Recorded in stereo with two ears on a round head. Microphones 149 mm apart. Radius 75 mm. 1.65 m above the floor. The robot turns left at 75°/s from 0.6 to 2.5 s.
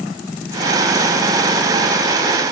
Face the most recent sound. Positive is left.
No sound to turn to.